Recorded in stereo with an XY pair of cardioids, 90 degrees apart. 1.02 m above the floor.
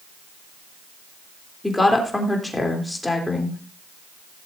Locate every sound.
1.6 s a woman speaking: 15° left, 3 m